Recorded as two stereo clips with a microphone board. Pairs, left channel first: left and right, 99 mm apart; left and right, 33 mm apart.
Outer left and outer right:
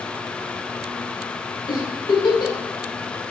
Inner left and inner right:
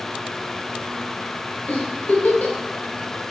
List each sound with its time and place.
1.7 s a giggle: 55° left (ahead or behind), 1.4 m